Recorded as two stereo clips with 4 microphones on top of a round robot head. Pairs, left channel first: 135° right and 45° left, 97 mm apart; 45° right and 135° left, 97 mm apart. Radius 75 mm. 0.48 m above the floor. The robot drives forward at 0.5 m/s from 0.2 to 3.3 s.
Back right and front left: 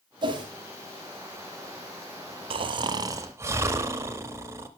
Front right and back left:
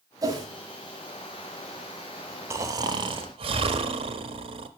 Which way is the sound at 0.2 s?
80° left.